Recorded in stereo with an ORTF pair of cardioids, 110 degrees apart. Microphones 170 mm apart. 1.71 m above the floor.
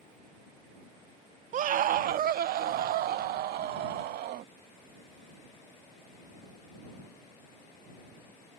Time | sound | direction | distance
1.5 | a scream | 50° right | ?